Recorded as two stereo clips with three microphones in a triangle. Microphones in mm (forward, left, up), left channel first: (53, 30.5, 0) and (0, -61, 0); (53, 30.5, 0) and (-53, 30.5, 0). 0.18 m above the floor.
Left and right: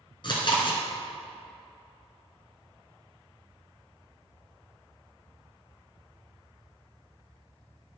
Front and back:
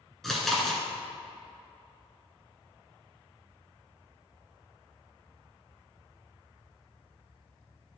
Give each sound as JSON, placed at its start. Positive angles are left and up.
{"t": 0.2, "sound": "chewing", "azimuth_deg": 85, "distance_m": 1.8}